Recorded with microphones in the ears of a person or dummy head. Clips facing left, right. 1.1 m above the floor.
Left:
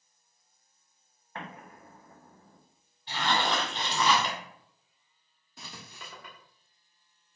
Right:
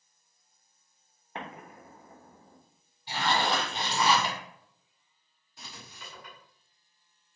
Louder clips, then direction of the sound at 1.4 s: Right 2 dB; 20° right (ahead or behind).